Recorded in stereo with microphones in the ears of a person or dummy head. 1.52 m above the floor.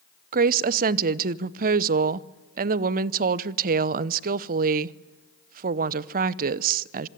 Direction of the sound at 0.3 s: 50° right (ahead or behind).